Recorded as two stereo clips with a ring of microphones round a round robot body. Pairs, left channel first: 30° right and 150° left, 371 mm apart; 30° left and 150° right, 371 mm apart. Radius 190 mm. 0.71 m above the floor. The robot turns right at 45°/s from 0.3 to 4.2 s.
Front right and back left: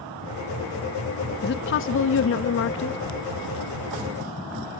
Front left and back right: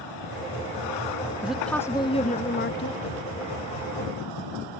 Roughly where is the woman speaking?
Ahead right.